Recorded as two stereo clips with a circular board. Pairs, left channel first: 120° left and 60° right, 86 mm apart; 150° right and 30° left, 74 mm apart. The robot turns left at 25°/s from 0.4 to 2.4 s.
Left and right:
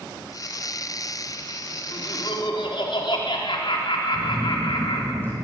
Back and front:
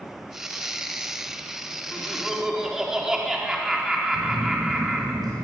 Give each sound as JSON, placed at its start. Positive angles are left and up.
{"t": 1.9, "sound": "laughter", "azimuth_deg": 125, "distance_m": 3.5}
{"t": 4.1, "sound": "a phone buzzing", "azimuth_deg": 50, "distance_m": 7.0}